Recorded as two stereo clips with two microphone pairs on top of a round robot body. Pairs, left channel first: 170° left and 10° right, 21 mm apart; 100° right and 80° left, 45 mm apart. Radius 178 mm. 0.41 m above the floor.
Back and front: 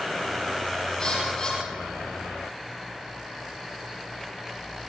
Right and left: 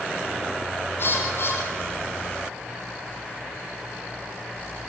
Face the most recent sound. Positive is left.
turn(degrees=-135)